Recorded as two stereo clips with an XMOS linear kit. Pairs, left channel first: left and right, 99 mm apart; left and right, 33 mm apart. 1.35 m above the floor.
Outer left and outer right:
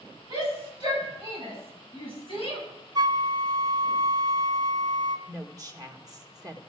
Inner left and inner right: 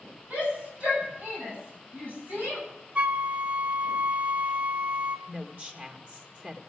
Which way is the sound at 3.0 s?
40° right (ahead or behind).